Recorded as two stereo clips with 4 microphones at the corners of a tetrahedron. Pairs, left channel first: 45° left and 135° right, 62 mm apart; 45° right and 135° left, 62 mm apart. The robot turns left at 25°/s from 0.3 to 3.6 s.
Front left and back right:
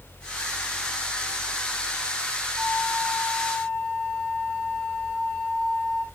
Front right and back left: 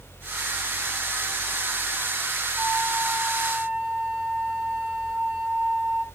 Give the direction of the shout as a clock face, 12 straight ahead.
No shout in this recording.